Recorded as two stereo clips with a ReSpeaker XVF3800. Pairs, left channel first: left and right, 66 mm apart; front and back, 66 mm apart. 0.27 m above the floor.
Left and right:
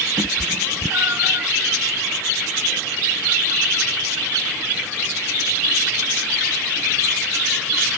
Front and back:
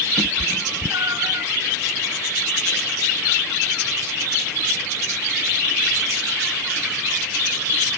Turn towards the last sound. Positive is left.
turn(degrees=-140)